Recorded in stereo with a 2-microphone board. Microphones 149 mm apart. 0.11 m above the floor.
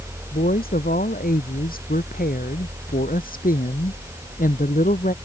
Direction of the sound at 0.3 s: 80° left.